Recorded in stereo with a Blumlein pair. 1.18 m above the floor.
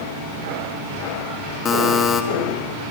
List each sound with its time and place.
1.6 s a buzzer: 25° left, 1.0 m